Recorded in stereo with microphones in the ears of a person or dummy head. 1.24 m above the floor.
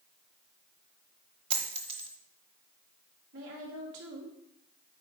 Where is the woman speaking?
70° right (ahead or behind), 2.5 m.